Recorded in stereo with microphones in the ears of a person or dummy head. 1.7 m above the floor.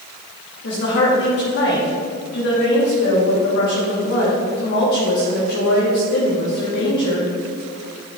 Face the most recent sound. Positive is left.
turn(degrees=60)  # may be behind; listen again after turning